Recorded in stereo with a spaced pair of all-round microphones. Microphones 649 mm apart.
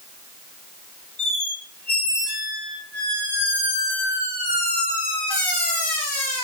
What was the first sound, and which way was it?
A squeak, 40° left (ahead or behind).